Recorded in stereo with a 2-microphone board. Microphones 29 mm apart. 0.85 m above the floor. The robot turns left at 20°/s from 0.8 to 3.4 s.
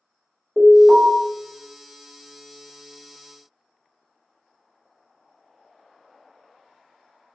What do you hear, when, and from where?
0.6 s an alarm: 10° right (ahead or behind), 1.8 m; by 1.1 s 5° right (ahead or behind), 1.8 m